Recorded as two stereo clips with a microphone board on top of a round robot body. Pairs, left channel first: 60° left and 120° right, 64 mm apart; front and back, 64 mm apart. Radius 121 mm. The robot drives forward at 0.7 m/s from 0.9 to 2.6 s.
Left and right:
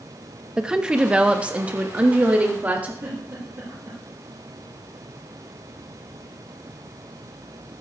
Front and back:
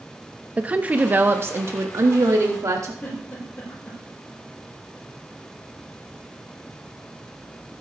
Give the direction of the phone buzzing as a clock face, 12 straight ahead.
I don't hear a phone buzzing.